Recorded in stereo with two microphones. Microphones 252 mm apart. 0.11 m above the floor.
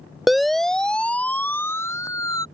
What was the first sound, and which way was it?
A siren, centre (ahead or behind).